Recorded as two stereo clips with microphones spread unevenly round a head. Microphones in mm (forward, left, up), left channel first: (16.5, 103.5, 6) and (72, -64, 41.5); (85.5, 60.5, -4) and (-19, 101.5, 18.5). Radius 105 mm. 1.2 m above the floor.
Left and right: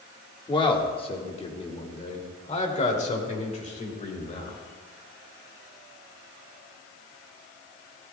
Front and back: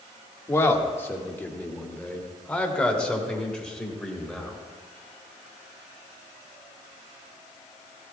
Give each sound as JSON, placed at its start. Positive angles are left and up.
{"t": 0.5, "sound": "a man speaking", "azimuth_deg": 45, "distance_m": 1.9}